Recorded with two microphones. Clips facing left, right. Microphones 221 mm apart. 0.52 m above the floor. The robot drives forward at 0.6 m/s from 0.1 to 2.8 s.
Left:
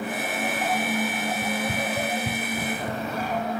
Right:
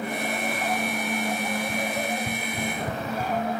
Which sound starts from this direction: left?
Running footsteps, at 1.4 s.